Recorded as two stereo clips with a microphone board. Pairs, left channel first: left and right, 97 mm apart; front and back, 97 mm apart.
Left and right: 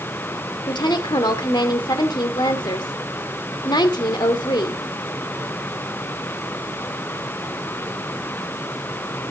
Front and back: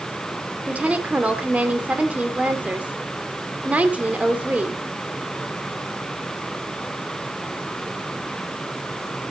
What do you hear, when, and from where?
0.7 s a woman speaking: 110° left, 1.7 m